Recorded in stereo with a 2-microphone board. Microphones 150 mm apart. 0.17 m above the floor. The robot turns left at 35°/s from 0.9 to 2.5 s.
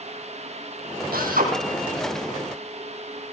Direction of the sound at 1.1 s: 80° right.